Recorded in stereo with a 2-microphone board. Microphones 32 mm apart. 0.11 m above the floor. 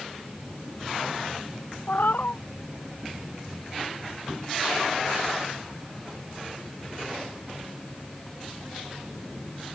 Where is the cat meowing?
65° left (ahead or behind).